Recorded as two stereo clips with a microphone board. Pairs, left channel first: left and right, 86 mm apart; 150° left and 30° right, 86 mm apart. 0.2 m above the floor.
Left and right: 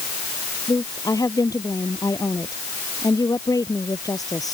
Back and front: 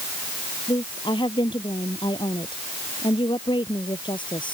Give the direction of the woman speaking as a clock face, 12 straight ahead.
7 o'clock.